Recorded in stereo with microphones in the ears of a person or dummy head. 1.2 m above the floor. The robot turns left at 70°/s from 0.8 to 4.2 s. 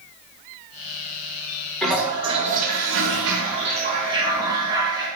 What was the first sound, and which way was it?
A toilet flushing, 5° left.